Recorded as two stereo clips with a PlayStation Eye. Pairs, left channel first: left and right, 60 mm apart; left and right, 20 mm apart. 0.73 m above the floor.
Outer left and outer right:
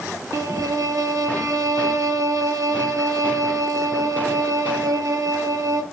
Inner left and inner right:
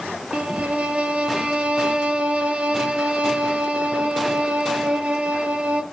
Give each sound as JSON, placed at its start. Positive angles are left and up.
{"t": 0.3, "sound": "a violin", "side_deg": -70, "distance_m": 0.6}